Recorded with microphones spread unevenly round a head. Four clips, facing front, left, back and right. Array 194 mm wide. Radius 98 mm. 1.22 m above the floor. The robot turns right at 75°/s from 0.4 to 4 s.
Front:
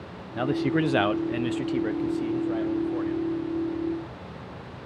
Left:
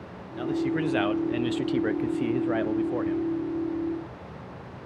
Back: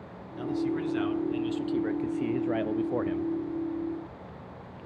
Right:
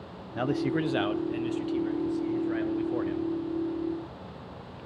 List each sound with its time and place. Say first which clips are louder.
0.3 s a man speaking: left 1 dB, front 5 dB; 35° right, 0.7 m; by 3.3 s 175° right, 0.7 m